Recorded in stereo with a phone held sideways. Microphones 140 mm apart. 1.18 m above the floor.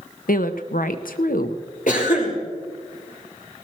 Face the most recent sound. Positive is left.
turn(degrees=70)  # may be behind; listen again after turning